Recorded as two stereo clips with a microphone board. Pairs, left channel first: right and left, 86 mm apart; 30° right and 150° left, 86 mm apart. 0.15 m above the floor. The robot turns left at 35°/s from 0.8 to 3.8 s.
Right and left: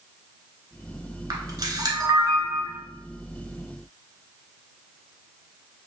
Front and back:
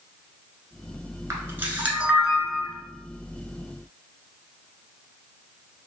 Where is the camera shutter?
105° left, 1.0 m; by 2.8 s 50° left, 1.0 m.